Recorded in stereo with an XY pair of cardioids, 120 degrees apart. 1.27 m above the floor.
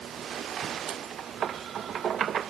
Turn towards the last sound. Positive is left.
No sound to turn to.